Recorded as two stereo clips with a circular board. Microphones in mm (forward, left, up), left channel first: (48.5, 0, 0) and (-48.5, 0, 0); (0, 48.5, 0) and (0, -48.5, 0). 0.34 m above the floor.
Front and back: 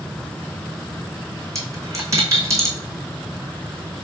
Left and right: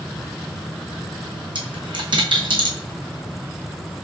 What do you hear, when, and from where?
1.6 s a dropped coin: 120° right, 1.3 m